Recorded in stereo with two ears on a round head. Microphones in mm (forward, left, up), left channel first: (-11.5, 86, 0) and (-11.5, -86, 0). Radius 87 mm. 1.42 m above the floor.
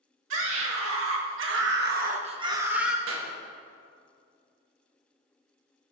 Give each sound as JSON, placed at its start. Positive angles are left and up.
{"t": 0.3, "sound": "a scream", "side_deg": -70, "distance_m": 2.5}
{"t": 3.1, "sound": "a clap", "side_deg": -75, "distance_m": 1.7}